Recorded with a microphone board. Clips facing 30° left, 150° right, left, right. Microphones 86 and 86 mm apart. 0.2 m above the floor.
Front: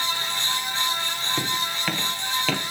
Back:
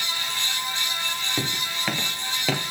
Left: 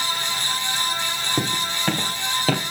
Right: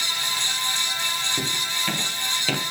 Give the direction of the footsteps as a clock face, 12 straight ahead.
8 o'clock.